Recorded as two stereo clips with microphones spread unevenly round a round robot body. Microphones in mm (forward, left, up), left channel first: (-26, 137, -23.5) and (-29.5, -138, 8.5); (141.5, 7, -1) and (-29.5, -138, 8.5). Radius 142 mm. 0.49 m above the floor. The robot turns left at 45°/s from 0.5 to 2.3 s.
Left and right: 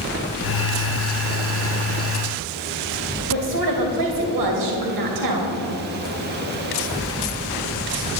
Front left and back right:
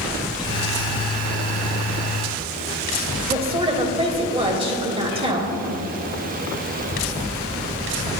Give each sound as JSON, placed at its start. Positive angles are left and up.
{"t": 3.3, "sound": "a woman speaking", "azimuth_deg": -75, "distance_m": 2.5}